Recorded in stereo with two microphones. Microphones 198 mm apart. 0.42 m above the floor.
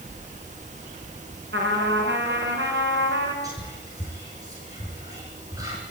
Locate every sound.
1.5 s a trumpet: 60° right (ahead or behind), 5 m
3.4 s whispering: 15° right (ahead or behind), 7.5 m